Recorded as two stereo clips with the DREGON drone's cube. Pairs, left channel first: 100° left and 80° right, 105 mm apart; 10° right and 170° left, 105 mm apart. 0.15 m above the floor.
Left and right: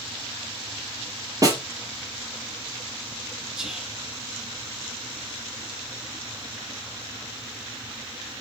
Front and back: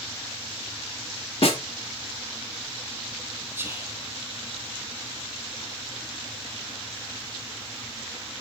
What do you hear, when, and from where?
1.4 s a snare drum: 25° right, 2.5 m
3.5 s whispering: 155° right, 1.4 m